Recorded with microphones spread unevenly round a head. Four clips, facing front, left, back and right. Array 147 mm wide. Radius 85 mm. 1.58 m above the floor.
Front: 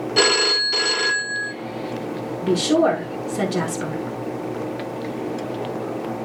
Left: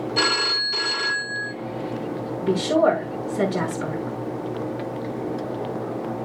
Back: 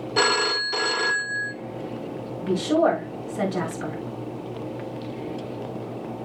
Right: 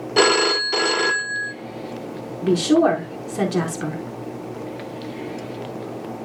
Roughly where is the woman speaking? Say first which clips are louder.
Right 3 dB, front 3 dB; ahead right.